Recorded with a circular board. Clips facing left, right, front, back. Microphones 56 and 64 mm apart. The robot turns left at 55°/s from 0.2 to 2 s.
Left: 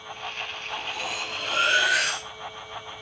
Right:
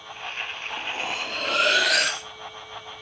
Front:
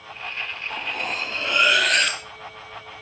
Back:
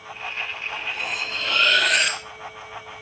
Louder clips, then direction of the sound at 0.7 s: Right 2 dB, front 3 dB; 25° right.